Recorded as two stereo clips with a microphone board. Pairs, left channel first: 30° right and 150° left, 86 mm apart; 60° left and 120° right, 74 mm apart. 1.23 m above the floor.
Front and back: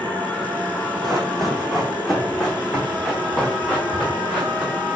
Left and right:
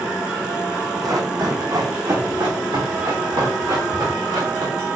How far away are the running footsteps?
About 2.5 m.